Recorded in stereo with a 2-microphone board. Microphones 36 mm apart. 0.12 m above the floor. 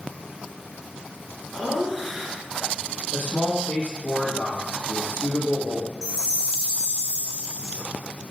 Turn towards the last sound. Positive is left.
turn(degrees=-20)  # may be behind; listen again after turning